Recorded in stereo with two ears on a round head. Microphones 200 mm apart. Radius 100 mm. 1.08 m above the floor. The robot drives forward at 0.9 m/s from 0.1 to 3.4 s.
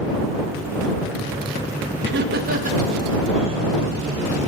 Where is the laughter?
50° right (ahead or behind), 1.2 m; by 3.8 s 25° right (ahead or behind), 2 m.